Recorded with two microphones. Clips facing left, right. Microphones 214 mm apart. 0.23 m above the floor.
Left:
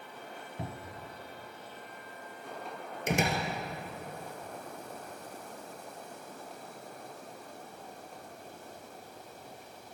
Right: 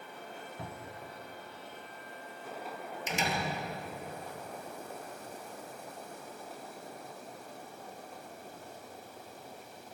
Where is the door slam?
55° left (ahead or behind), 3 m.